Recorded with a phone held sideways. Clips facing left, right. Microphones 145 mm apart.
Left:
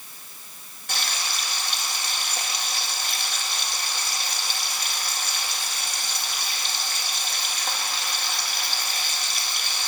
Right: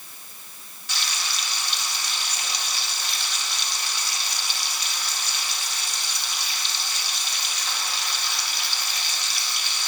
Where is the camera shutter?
No camera shutter in this recording.